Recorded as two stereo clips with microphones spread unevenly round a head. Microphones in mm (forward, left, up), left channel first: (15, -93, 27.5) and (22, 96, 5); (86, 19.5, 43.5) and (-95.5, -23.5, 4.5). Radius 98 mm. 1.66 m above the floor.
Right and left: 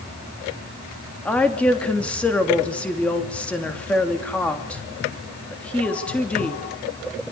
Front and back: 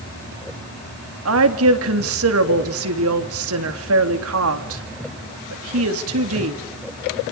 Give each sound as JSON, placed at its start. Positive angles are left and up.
{"t": 1.2, "sound": "a woman speaking", "azimuth_deg": -175, "distance_m": 3.0}